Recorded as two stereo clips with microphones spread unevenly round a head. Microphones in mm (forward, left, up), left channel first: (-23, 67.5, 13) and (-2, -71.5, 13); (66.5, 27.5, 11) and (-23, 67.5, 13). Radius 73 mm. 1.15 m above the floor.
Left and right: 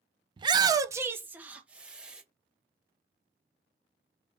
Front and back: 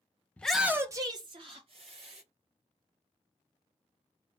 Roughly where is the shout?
Right.